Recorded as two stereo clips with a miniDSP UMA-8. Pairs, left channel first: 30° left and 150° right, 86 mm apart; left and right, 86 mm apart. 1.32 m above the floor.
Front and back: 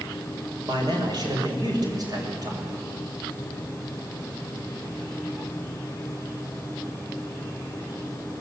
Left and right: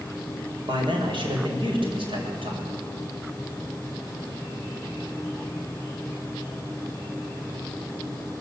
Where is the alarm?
No alarm in this recording.